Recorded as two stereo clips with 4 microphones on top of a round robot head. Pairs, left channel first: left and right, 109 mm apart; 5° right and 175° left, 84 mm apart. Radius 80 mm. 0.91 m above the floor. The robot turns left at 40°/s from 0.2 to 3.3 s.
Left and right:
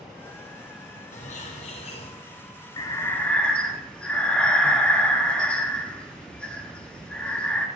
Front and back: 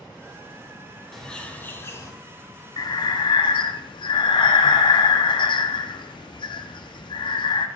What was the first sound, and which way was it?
A bird, 85° left.